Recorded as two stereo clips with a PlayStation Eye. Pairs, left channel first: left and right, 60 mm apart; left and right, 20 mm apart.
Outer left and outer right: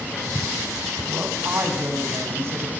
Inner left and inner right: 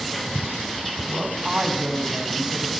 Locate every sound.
1.1 s a woman speaking: 45° right (ahead or behind), 5.5 m